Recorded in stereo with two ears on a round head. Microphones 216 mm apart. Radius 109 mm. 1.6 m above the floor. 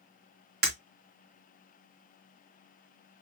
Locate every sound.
0.6 s breaking glass: 45° right (ahead or behind), 2.5 m